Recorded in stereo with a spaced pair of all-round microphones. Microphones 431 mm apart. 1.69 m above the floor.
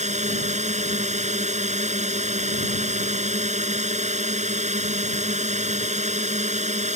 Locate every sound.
0.0 s a drone: 15° right (ahead or behind)